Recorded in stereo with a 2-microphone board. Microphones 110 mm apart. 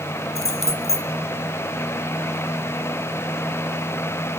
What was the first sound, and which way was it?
Keys jangling, 75° left (ahead or behind).